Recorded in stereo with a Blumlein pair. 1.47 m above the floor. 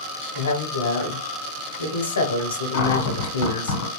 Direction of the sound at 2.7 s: 55° left.